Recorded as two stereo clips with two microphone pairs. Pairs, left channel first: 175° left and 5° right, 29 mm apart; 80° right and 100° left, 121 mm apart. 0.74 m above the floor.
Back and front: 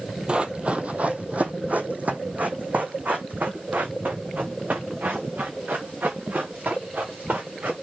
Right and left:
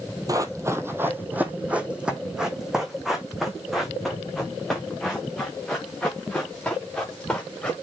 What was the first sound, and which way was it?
Running footsteps, 45° left.